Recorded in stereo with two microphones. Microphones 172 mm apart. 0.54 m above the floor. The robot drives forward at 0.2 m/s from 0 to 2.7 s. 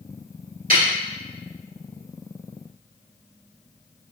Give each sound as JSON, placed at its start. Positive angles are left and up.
{"t": 0.7, "sound": "a snare drum", "side_deg": -55, "distance_m": 1.6}